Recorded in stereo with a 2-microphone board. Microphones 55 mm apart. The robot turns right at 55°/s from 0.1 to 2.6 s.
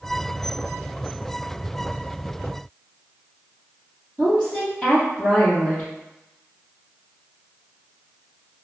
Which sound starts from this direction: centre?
A woman speaking, at 4.2 s.